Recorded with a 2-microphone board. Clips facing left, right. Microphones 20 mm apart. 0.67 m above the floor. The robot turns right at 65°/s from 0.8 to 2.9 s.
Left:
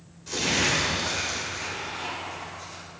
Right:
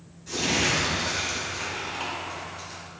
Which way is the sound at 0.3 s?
155° left.